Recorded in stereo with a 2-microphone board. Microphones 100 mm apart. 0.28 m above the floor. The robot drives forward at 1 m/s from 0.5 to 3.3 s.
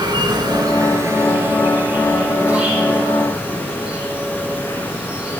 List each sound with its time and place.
0.0 s an insect: 45° right (ahead or behind), 0.9 m; by 5.4 s 10° right (ahead or behind), 3.5 m